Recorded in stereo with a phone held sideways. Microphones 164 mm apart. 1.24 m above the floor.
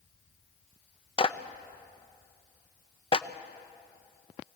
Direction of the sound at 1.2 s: 30° left (ahead or behind).